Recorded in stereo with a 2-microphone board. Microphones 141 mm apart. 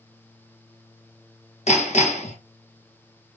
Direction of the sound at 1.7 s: 55° left (ahead or behind).